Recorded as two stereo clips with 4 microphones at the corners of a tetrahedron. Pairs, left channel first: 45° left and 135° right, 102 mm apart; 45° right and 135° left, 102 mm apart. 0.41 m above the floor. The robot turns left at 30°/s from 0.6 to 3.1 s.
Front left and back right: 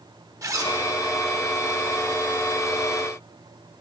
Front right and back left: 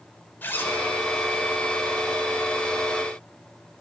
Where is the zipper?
100° right, 0.8 m; by 0.8 s 105° right, 0.8 m.